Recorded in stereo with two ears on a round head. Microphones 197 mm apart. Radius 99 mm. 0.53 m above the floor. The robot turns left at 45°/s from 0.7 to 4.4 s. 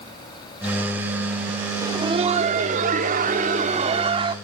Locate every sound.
1.8 s laughter: 30° right, 1.5 m; by 4.3 s 145° right, 1.5 m